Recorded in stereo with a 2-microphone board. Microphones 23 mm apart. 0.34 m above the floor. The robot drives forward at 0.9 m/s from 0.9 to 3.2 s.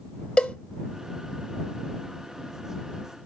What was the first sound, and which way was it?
A cowbell, 60° left (ahead or behind).